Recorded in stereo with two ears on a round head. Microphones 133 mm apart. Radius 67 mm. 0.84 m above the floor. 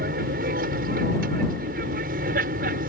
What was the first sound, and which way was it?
An aircraft, 65° right (ahead or behind).